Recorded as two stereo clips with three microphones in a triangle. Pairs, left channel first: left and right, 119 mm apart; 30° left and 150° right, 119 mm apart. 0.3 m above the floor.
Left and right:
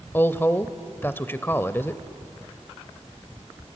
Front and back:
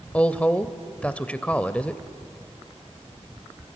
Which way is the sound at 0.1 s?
80° left.